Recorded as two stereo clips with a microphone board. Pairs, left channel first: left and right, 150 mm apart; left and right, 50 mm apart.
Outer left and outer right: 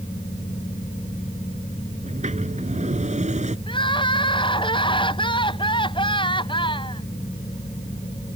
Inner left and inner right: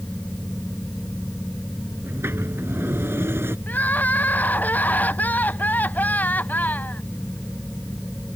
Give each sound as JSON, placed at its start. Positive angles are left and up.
{"t": 2.0, "sound": "a sliding door", "side_deg": -55}
{"t": 3.7, "sound": "crying", "side_deg": 35}